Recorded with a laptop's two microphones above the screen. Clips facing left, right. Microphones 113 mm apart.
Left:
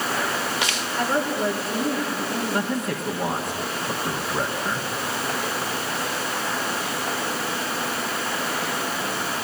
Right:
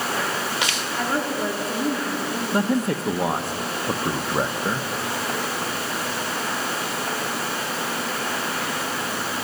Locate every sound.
1.0 s a woman speaking: centre (ahead or behind), 2 m
2.5 s a man speaking: 20° right (ahead or behind), 1.1 m